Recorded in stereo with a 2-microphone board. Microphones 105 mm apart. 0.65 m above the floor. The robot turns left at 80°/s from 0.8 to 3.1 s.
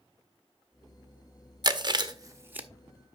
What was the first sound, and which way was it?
Chewing, 45° right (ahead or behind).